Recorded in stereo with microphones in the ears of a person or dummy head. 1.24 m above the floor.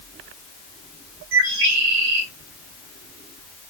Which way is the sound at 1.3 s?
70° right (ahead or behind).